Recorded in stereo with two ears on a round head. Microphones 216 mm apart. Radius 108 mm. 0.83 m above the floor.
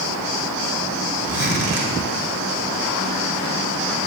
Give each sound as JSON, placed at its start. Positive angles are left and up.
{"t": 1.3, "sound": "a zipper", "side_deg": -45, "distance_m": 1.9}